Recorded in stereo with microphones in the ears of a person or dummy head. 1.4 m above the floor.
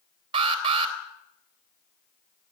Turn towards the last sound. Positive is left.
turn(degrees=-30)  # may be behind; listen again after turning